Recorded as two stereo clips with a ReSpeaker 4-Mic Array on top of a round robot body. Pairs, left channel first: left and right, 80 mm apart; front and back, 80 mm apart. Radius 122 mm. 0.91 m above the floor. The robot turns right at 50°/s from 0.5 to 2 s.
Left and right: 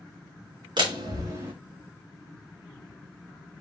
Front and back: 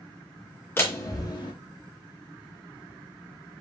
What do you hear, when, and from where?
0.8 s a door slam: 65° right, 2.5 m; by 1.5 s 25° right, 2.5 m